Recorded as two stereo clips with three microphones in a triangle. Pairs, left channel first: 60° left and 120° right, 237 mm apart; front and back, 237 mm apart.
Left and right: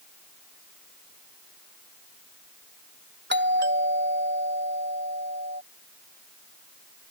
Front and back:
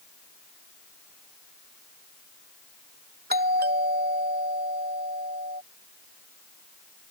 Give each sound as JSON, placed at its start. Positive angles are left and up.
{"t": 3.3, "sound": "a doorbell", "azimuth_deg": -145}